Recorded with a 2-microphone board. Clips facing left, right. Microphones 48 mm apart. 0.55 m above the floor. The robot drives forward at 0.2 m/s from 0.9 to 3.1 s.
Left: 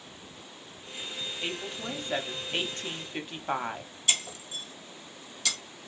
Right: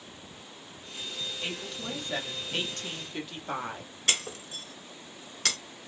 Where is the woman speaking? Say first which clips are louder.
Left 3 dB; 20° left (ahead or behind), 0.8 m; by 3.9 s 25° left (ahead or behind), 0.6 m.